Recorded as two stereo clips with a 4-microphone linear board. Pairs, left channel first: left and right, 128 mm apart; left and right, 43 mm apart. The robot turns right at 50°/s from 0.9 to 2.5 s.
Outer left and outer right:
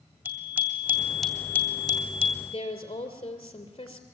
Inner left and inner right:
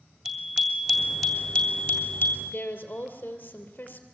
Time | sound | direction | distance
0.2 | a bicycle bell | 15° right | 2 m
2.5 | a woman speaking | 40° left (ahead or behind) | 2.5 m